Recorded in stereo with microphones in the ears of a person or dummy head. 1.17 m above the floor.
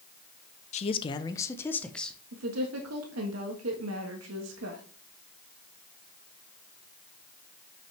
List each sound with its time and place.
0.7 s a man speaking: 30° left (ahead or behind), 0.6 m; by 2.2 s centre (ahead or behind), 1.0 m
2.3 s a woman speaking: 85° right, 1.4 m